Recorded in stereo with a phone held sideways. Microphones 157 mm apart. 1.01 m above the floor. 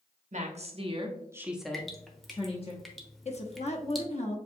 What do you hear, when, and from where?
0.3 s a woman speaking: 50° right (ahead or behind), 1.0 m; by 2.7 s 40° left (ahead or behind), 1.0 m
1.7 s dripping: centre (ahead or behind), 0.8 m
3.2 s a woman speaking: 45° left (ahead or behind), 1.0 m